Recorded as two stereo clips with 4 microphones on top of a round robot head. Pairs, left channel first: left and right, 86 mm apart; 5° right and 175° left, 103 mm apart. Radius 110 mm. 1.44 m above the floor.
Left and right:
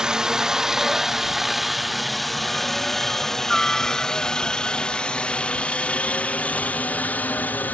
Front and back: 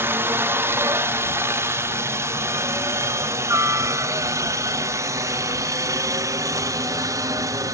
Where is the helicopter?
160° right; by 7.7 s 145° left.